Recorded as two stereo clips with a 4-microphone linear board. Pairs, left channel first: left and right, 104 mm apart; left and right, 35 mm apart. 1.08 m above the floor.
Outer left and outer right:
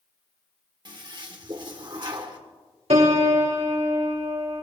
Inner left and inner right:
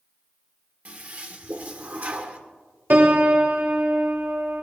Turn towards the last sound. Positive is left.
turn(degrees=-70)  # may be behind; listen again after turning